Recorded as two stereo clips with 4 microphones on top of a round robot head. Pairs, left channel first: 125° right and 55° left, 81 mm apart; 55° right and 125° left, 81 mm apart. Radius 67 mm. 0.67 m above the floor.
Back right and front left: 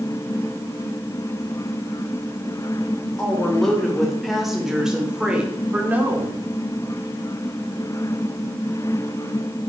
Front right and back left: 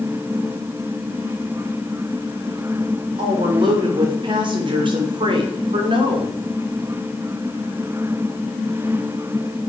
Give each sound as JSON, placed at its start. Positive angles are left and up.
{"t": 3.2, "sound": "a woman speaking", "azimuth_deg": 150, "distance_m": 3.5}